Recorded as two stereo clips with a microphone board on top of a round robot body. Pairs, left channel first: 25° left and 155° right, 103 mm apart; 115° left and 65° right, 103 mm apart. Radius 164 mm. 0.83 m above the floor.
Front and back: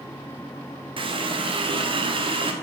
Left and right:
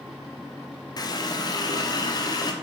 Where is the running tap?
165° left, 1.3 m.